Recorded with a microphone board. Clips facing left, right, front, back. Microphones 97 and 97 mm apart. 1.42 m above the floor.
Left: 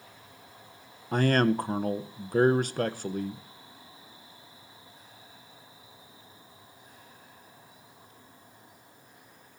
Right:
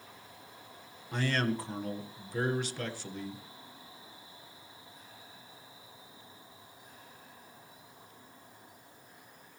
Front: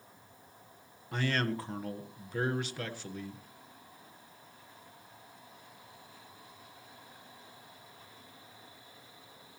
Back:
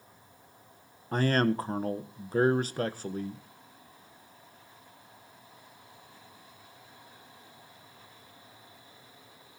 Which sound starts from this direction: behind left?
A man speaking, at 1.1 s.